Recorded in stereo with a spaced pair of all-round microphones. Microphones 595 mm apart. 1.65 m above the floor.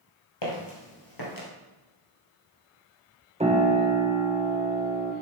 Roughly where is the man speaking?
I don't hear a man speaking.